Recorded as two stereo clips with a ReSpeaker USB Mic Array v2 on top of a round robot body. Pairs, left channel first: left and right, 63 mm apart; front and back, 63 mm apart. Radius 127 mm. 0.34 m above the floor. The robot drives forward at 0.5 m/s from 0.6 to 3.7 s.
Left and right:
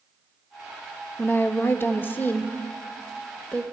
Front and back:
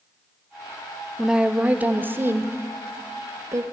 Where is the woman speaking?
100° left, 0.9 m; by 3.6 s 160° left, 1.6 m.